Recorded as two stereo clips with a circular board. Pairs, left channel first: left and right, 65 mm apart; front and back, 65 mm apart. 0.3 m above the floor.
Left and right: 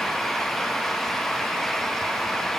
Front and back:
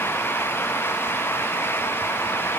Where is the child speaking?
No child speaking in this recording.